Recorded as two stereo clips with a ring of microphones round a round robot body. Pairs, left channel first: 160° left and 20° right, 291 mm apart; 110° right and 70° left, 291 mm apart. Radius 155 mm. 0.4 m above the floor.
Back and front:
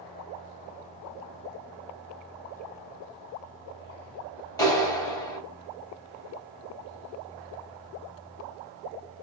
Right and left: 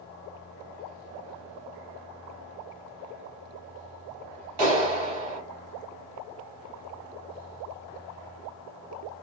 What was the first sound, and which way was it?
A clap, 80° left.